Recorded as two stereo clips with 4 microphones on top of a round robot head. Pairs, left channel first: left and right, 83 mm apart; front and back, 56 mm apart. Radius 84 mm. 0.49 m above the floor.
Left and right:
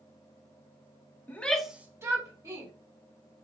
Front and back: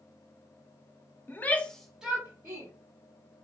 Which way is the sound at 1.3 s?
30° left.